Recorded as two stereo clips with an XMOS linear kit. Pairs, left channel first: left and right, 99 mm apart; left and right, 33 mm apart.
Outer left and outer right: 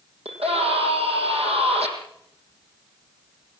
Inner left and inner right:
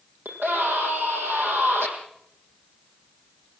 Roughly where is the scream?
Right.